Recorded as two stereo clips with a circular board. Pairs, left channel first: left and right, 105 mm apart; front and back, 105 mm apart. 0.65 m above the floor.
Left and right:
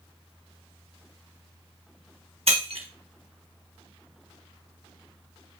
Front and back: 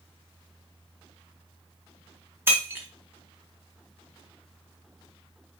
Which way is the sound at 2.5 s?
110° right.